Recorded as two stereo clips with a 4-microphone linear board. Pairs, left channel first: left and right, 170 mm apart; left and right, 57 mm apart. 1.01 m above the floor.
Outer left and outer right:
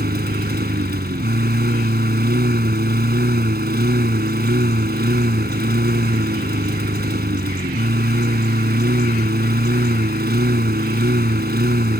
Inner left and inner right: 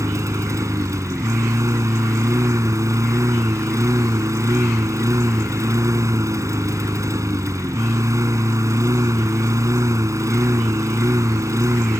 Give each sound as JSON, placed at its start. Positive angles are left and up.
{"t": 0.0, "sound": "a lawn mower", "side_deg": -70}